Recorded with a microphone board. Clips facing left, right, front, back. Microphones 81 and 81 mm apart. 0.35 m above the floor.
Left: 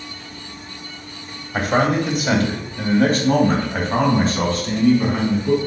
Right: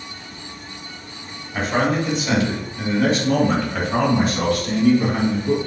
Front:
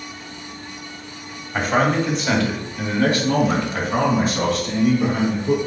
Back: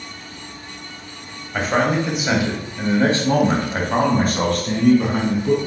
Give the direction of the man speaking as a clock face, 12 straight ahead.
9 o'clock.